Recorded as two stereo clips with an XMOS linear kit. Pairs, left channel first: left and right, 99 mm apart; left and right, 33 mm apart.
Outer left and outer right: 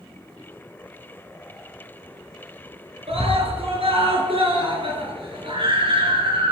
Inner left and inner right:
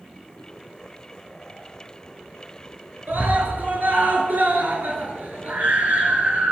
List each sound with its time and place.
3.1 s a scream: 75° right (ahead or behind), 7 m; by 6.5 s 60° right (ahead or behind), 7.5 m